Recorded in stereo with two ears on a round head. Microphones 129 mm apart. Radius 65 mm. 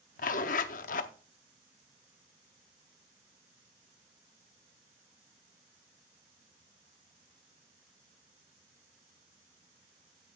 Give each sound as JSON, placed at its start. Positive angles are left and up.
{"t": 0.2, "sound": "a zipper", "side_deg": 60, "distance_m": 0.7}